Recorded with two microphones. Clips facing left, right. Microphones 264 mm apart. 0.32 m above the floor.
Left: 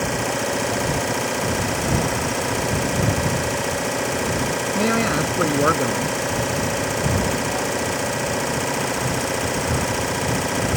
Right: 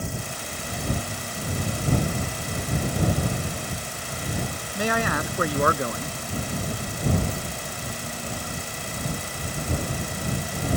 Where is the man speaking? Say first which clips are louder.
Left 5 dB; 25° left (ahead or behind).